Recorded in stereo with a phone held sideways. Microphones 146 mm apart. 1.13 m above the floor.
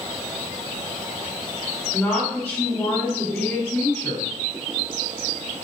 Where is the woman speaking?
15° left (ahead or behind), 3.5 m.